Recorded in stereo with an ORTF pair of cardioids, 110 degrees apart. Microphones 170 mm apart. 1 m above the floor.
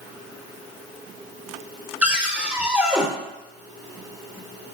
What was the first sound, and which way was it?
A cupboard door, 10° right.